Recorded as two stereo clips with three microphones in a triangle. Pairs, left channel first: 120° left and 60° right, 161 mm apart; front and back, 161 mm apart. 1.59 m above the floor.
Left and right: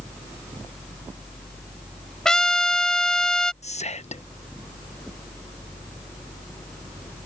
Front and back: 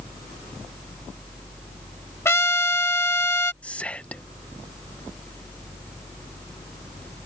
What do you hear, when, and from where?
2.2 s a trumpet: 40° left
3.6 s whispering: 80° left